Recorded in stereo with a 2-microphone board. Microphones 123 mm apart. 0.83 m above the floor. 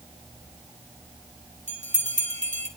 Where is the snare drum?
No snare drum in this recording.